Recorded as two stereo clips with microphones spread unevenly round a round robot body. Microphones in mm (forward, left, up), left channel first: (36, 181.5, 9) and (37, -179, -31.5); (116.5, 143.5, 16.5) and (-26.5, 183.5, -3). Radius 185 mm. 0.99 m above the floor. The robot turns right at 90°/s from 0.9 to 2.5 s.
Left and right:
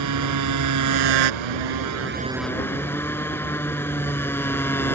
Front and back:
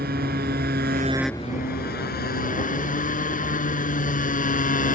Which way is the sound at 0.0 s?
135° right.